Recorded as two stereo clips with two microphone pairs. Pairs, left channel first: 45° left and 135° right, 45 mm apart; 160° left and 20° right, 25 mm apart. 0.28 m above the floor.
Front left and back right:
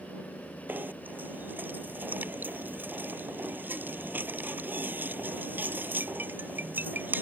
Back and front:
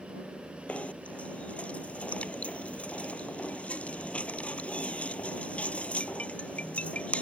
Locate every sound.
0.7 s knocking: 175° left